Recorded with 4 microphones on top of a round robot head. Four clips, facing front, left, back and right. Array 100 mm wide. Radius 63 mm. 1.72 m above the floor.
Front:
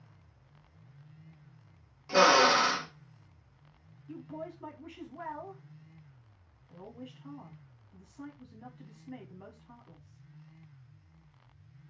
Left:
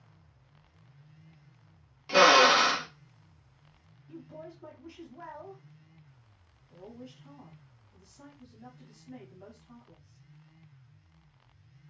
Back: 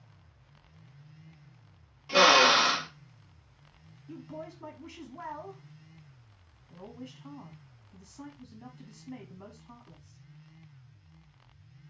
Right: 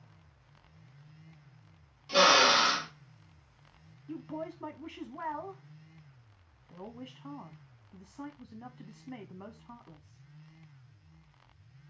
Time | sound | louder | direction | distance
2.1 | a drill | left 4 dB, back 1 dB | 70° left | 0.9 m
4.1 | a woman speaking | right 6 dB, even | 100° right | 1.0 m